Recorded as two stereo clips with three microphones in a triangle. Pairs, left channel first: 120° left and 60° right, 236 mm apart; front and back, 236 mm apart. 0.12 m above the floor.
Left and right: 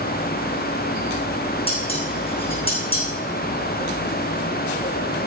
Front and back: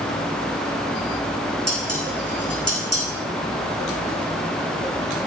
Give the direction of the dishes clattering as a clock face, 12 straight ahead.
6 o'clock.